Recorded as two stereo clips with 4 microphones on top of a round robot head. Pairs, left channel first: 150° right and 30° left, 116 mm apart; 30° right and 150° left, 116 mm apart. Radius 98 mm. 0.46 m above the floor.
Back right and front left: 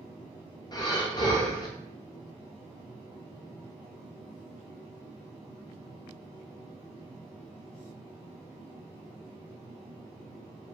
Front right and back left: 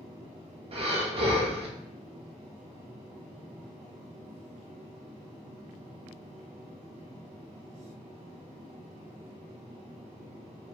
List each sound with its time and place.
0.7 s breathing: 165° left, 0.7 m